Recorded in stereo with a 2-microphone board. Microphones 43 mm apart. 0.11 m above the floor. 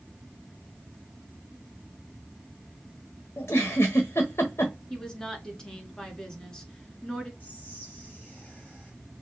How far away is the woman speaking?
About 1.1 m.